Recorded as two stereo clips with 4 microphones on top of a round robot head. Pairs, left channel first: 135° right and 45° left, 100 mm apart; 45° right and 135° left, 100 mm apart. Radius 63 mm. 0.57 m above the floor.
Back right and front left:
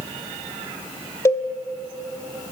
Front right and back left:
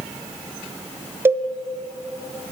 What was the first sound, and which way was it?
A cowbell, 175° right.